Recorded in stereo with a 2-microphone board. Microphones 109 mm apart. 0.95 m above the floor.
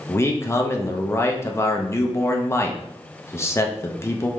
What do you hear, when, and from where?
0.1 s a man speaking: 25° left (ahead or behind), 0.6 m